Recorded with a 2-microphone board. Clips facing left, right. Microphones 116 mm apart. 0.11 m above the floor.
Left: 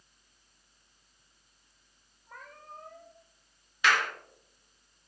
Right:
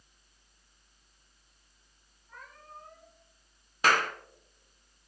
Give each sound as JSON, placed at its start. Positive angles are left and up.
{"t": 2.3, "sound": "a cat meowing", "side_deg": 85, "distance_m": 4.0}
{"t": 3.8, "sound": "a clap", "side_deg": -40, "distance_m": 1.5}